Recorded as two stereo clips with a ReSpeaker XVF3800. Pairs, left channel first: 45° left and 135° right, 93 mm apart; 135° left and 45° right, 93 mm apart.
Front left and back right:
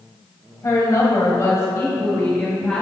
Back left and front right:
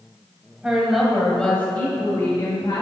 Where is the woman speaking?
30° left, 1.7 m; by 2.8 s 115° left, 1.9 m.